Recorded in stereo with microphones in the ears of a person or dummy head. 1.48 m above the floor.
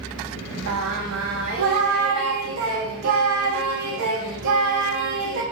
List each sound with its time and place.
0.7 s singing: 65° right (ahead or behind), 0.7 m